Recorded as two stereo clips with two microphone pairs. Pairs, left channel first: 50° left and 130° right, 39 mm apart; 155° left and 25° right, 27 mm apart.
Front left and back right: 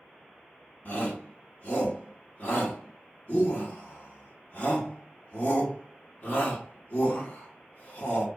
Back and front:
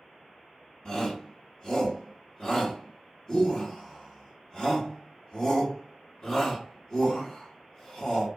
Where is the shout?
90° left, 1.5 m.